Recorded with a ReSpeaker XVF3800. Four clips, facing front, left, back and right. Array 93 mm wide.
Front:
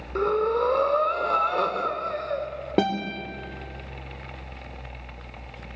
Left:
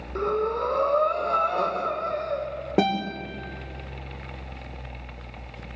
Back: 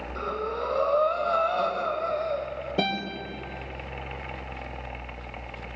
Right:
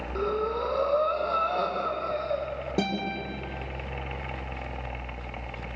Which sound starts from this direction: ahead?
Breathing, at 0.1 s.